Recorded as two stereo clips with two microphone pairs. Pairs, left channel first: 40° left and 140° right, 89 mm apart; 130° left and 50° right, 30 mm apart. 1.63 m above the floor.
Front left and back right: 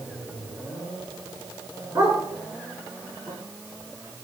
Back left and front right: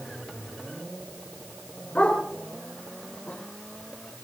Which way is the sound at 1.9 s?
170° left.